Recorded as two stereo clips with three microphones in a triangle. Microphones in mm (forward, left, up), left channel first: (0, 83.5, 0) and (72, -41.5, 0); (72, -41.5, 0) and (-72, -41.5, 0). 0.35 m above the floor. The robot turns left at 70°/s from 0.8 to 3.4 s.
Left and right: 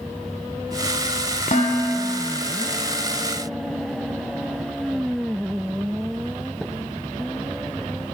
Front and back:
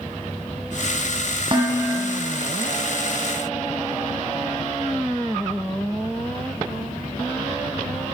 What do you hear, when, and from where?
1.5 s dishes clattering: 135° left, 1.7 m; by 2.4 s 75° left, 1.7 m